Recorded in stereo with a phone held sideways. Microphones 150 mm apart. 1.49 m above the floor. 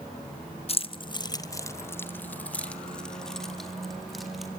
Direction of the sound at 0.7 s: 40° left (ahead or behind).